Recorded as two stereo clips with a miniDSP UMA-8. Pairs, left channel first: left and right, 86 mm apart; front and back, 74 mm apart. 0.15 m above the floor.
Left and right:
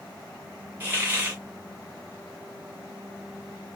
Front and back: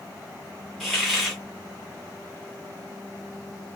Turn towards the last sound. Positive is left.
turn(degrees=-85)